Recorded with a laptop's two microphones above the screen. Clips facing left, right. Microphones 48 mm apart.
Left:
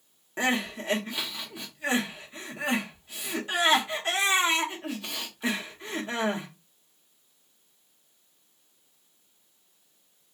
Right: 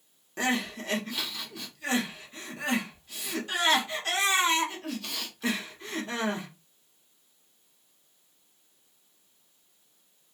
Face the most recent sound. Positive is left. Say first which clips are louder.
# left 2 dB
turn(degrees=25)  # may be behind; listen again after turning